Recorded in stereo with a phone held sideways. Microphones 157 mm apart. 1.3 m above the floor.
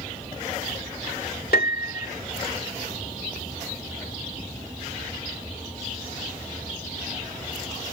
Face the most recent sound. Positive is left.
turn(degrees=90)